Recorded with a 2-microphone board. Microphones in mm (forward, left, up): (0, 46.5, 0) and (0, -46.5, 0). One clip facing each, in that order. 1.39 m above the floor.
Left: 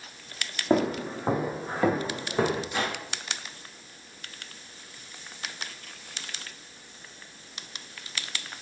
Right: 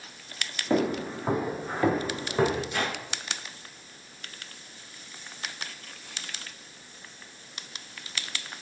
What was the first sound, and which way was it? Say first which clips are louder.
Footsteps: left 1 dB; 25° left (ahead or behind).